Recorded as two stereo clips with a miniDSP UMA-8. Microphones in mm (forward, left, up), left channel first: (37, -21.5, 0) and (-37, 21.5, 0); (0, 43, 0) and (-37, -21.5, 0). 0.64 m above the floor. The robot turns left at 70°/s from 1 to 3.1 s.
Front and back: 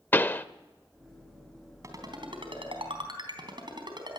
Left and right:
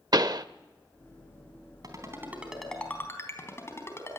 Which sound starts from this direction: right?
A pop, at 0.1 s.